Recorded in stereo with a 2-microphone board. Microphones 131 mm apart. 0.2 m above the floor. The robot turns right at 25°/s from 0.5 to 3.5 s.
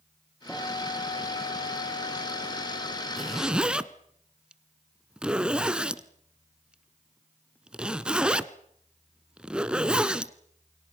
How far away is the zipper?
About 1.2 m.